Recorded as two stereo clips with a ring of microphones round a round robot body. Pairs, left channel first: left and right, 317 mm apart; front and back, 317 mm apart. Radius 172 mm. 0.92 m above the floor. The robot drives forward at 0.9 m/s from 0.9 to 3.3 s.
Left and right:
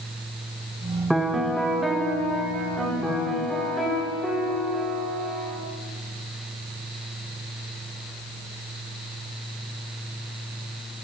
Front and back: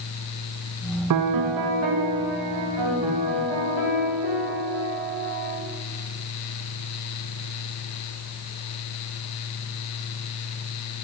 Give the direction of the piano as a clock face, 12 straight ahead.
6 o'clock.